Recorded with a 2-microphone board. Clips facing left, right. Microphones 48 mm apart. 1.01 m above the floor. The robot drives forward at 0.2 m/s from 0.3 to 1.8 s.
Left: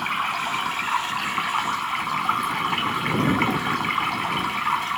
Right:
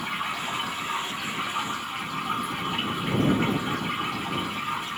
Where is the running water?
70° left (ahead or behind), 0.9 m; by 5.0 s 90° left, 0.8 m.